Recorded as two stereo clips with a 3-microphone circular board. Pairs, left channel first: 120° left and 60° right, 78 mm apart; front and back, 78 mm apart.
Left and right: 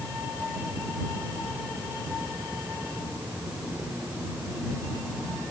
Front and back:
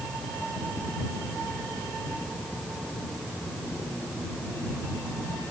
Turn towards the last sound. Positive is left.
No sound to turn to.